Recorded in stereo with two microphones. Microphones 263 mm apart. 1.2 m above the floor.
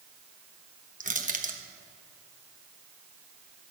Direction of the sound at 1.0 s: 30° right (ahead or behind).